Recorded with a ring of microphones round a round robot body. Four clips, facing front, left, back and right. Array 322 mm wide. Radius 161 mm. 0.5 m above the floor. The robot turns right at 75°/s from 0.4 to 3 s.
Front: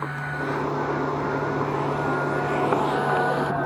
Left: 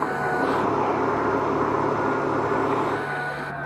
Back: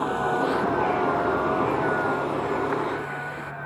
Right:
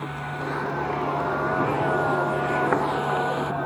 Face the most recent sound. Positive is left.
turn(degrees=-25)